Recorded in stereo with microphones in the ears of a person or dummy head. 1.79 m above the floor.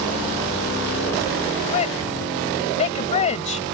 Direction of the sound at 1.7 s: 35° left (ahead or behind).